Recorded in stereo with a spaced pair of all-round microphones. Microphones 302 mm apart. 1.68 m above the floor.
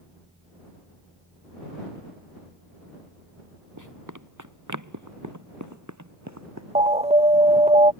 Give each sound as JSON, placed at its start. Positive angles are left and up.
{"t": 3.8, "sound": "running footsteps", "side_deg": -70}
{"t": 6.8, "sound": "an alarm", "side_deg": -20}